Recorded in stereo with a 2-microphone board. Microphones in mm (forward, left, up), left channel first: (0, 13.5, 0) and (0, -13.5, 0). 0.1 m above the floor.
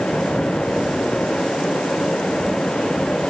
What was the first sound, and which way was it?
Only background noise.